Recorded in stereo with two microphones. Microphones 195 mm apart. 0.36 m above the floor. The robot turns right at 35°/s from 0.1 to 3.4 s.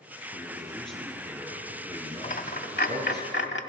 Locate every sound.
0.3 s a man speaking: 155° left, 5.5 m; by 3.2 s 100° right, 5.5 m
2.2 s a dropped coin: 45° left (ahead or behind), 0.8 m; by 3.6 s 75° left (ahead or behind), 0.8 m